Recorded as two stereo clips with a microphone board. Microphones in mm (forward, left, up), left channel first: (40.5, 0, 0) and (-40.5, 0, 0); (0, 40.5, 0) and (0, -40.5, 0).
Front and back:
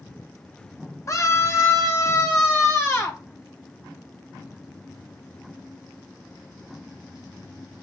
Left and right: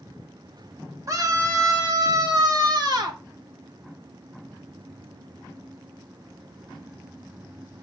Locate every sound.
1.1 s a scream: 45° right, 1.9 m; by 3.2 s 55° right, 3 m